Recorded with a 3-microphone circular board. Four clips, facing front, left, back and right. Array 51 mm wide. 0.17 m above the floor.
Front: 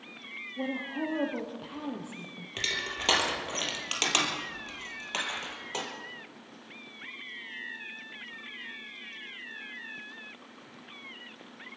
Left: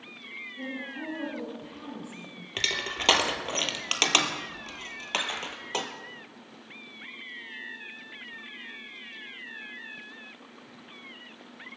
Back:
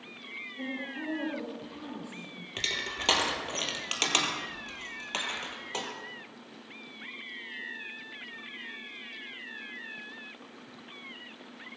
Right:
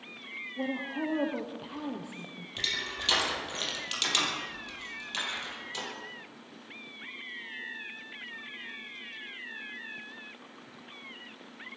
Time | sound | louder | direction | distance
0.6 | a woman speaking | right 5 dB, front 5 dB | 50° right | 4.5 m
2.6 | crushing | left 4 dB, front 1 dB | 90° left | 2 m